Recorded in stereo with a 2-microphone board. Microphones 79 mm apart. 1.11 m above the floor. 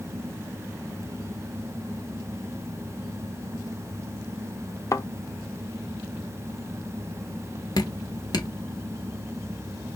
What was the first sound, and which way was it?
A thud, 40° left (ahead or behind).